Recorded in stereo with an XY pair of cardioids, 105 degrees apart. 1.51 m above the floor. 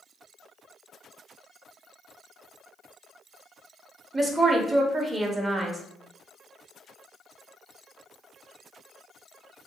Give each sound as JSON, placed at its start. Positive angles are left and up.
{"t": 4.1, "sound": "a woman speaking", "azimuth_deg": -25, "distance_m": 0.7}